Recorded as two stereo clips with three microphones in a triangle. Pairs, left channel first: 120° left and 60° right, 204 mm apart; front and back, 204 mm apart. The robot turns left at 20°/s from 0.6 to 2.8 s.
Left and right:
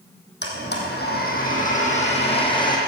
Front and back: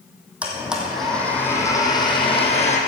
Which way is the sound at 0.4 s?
95° left.